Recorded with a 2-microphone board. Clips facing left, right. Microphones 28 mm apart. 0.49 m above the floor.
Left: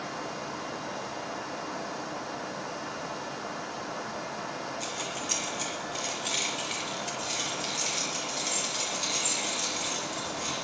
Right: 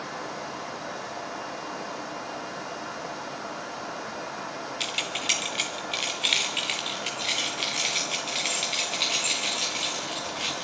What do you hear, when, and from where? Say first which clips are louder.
4.8 s keys jangling: right 5 dB; 70° right (ahead or behind), 1.7 m